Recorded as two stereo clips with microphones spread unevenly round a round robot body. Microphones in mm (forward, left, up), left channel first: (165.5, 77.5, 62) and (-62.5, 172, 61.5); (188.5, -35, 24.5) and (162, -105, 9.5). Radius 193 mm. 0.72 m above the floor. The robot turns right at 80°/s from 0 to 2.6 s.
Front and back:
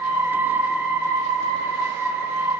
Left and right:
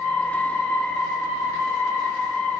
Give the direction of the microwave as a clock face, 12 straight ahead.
I don't hear a microwave.